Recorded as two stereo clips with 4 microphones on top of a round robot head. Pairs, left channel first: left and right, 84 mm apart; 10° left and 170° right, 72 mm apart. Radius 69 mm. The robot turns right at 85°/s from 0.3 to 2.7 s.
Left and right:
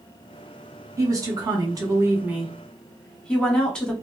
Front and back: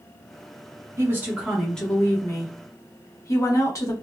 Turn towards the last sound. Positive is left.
turn(degrees=15)